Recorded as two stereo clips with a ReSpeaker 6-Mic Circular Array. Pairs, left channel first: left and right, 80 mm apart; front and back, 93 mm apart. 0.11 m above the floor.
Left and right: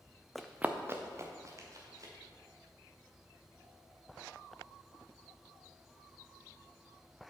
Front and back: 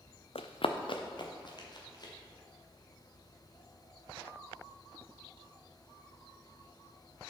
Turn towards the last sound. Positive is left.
turn(degrees=-45)